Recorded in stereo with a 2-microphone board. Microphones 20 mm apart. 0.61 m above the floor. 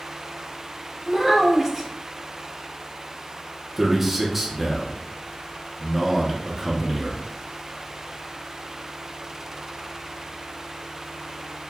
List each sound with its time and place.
1.1 s a child speaking: 15° right (ahead or behind), 1.2 m
3.8 s a man speaking: 5° right (ahead or behind), 0.7 m